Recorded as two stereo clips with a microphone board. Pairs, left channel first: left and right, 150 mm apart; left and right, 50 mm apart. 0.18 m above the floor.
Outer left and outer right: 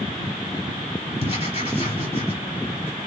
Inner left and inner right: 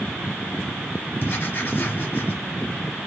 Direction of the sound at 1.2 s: 40° left (ahead or behind).